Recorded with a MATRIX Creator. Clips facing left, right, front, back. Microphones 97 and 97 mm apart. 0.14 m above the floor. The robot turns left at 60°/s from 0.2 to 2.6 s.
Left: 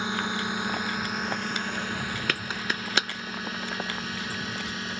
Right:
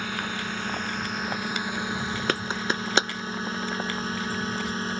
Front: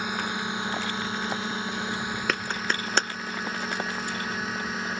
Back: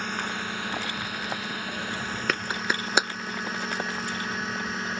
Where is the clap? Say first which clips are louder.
Right 4 dB, back 2 dB; 90° right; by 3.1 s 105° right.